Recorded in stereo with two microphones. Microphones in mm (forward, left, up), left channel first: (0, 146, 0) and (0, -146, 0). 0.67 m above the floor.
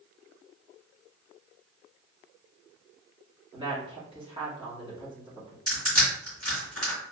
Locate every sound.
3.5 s a woman speaking: 15° right (ahead or behind), 1.4 m
5.7 s crushing: 60° right (ahead or behind), 2.0 m